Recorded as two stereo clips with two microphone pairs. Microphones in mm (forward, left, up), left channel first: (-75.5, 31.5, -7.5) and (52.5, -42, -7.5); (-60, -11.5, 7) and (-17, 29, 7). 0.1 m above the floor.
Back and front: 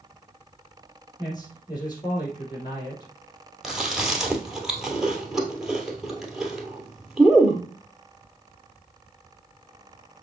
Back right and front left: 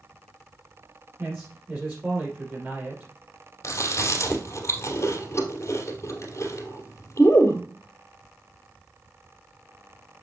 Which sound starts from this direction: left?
A man speaking, at 1.2 s.